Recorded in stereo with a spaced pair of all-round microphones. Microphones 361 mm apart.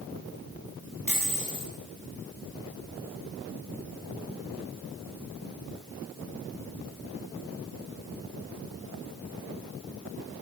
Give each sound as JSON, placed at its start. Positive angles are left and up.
{"t": 1.1, "sound": "a dropped coin", "side_deg": -60, "distance_m": 9.5}